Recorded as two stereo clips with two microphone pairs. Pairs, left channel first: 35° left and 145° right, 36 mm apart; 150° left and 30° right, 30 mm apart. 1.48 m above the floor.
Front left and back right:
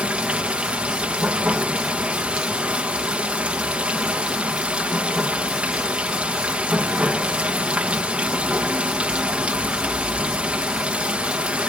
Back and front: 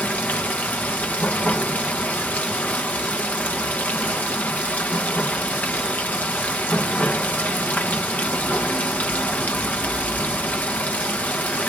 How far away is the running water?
About 1.1 m.